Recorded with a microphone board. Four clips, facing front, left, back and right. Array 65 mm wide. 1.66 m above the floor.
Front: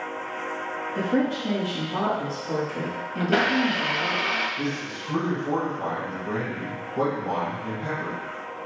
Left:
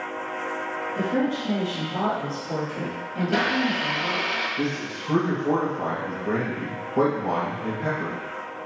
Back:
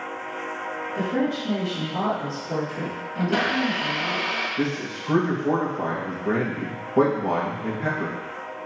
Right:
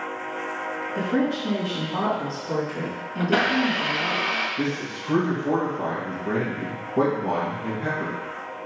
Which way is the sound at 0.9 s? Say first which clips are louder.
Right 1 dB, front 1 dB; 25° right.